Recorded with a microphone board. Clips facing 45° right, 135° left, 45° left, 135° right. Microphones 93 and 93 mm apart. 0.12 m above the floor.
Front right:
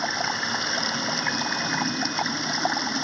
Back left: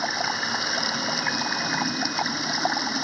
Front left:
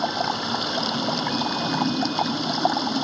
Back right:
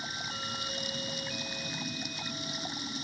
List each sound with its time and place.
0.0 s running water: 45° left